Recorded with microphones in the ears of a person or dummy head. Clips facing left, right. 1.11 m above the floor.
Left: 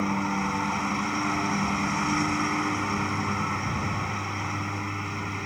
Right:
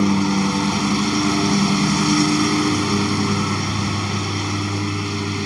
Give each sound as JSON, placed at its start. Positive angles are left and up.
{"t": 0.0, "sound": "a lawn mower", "side_deg": -50}